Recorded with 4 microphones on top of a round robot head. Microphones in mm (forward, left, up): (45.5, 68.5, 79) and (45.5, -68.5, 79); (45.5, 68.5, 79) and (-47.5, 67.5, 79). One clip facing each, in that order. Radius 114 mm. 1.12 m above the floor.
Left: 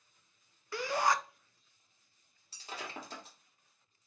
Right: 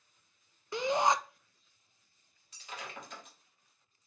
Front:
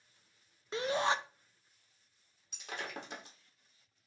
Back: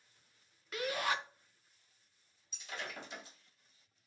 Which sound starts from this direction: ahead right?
A shout, at 0.7 s.